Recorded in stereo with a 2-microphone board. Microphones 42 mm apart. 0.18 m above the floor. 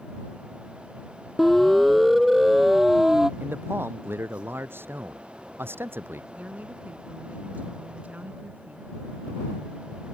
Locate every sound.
1.4 s a siren: centre (ahead or behind); by 3.3 s 10° right (ahead or behind)
3.4 s a man speaking: 70° right (ahead or behind)
6.3 s a woman speaking: 45° right (ahead or behind)